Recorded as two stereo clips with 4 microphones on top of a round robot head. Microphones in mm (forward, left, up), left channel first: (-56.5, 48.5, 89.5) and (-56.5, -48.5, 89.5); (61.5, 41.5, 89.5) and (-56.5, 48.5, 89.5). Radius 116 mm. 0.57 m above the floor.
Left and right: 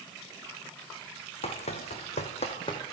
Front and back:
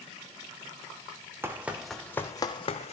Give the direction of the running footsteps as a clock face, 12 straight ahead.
8 o'clock.